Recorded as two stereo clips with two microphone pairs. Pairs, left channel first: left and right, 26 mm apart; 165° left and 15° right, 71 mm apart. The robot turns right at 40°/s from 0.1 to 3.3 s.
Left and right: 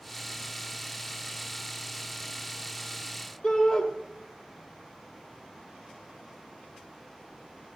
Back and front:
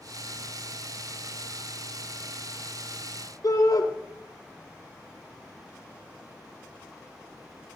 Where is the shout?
135° left, 4.5 m.